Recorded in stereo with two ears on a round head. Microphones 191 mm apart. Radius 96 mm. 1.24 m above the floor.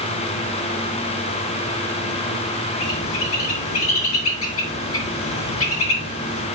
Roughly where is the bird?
Left.